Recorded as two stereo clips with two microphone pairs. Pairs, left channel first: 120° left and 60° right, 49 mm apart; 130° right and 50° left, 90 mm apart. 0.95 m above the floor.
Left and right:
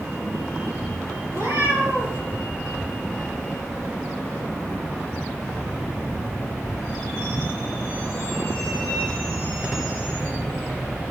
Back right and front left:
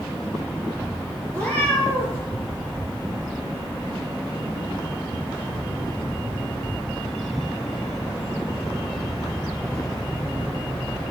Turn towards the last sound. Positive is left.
turn(degrees=-55)